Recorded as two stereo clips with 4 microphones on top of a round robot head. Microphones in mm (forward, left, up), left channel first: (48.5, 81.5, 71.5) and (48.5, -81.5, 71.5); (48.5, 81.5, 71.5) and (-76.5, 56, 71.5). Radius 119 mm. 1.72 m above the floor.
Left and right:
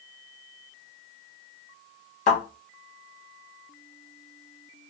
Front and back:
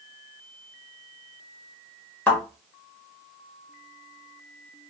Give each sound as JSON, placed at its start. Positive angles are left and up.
{"t": 2.3, "sound": "a thud", "azimuth_deg": 80, "distance_m": 1.3}